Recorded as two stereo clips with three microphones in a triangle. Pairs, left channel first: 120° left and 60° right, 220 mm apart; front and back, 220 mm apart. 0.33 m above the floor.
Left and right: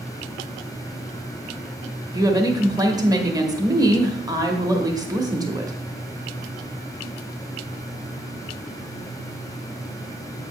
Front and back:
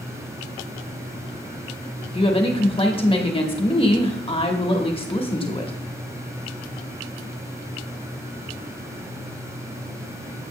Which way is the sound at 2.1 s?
15° right.